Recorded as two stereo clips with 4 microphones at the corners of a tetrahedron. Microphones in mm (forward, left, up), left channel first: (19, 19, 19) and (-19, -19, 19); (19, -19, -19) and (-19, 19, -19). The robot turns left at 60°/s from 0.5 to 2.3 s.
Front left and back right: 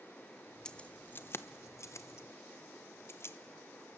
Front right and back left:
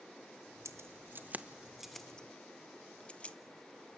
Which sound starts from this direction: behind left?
Keys jangling, at 0.7 s.